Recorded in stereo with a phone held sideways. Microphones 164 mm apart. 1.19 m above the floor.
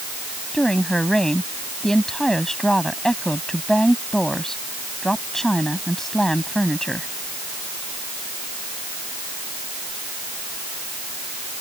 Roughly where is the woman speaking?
Centre.